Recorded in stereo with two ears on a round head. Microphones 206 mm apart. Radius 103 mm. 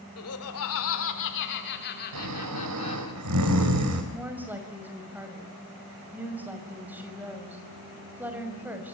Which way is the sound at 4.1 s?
10° right (ahead or behind).